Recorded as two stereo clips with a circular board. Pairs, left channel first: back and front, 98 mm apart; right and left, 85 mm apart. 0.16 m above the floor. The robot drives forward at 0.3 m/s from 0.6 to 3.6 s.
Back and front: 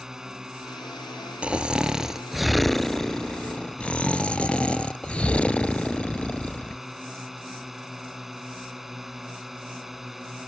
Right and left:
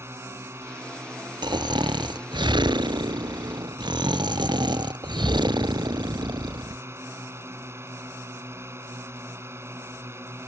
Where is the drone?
80° left; by 10.5 s 85° left.